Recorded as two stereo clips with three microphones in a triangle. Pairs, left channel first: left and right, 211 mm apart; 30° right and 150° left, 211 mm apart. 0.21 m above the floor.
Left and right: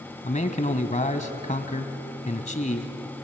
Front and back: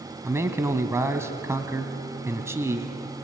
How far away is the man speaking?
About 1.2 m.